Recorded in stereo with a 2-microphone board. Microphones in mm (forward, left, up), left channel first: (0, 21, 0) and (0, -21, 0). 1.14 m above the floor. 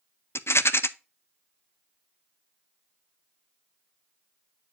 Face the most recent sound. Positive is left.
turn(degrees=80)